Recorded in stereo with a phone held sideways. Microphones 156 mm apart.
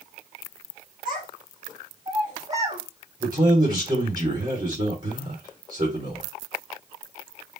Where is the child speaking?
50° right (ahead or behind), 2.5 m; by 2.8 s 40° right (ahead or behind), 1.9 m.